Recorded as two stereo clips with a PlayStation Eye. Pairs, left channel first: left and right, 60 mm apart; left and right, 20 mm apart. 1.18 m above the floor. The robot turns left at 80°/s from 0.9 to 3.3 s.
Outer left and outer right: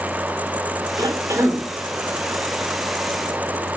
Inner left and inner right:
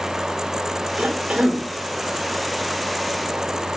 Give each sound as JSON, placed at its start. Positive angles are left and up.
{"t": 1.0, "sound": "a cough", "azimuth_deg": -95, "distance_m": 4.0}